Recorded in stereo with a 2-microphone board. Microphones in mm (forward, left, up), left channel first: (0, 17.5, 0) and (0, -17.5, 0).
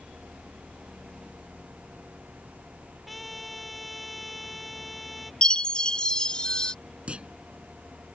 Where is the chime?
25° left (ahead or behind).